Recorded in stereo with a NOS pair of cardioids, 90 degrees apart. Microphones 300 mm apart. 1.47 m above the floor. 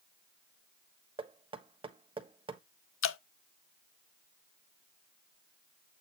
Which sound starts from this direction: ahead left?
Dripping, at 3.0 s.